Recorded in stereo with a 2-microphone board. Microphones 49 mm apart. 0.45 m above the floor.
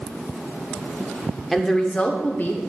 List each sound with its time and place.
1.5 s a woman speaking: centre (ahead or behind), 0.8 m; by 2.6 s 45° left (ahead or behind), 1.1 m